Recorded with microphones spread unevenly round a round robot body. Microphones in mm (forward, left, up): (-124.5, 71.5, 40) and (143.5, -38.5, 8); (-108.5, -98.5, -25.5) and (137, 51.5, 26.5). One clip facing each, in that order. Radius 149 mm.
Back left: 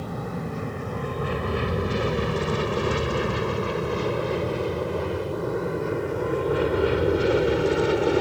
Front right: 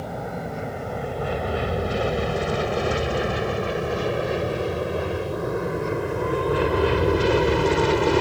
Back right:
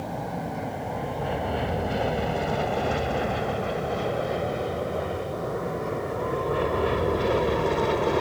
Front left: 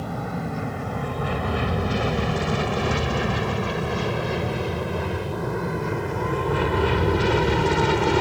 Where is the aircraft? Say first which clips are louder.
Even, front left 2 dB; 90° left; by 8.2 s 45° left.